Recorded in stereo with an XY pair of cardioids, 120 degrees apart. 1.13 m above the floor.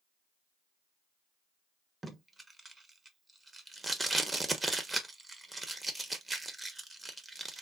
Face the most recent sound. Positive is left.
turn(degrees=-20)